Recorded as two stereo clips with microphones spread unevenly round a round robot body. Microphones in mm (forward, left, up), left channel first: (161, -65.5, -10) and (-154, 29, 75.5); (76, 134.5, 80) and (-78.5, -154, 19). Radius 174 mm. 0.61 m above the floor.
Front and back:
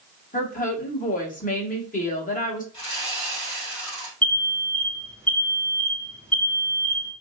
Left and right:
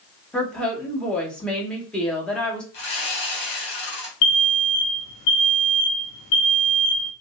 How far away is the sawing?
About 1.9 m.